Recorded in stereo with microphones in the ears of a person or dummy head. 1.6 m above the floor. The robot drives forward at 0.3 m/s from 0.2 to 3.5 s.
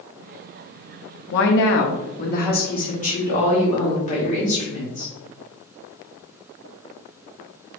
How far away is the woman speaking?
About 0.6 m.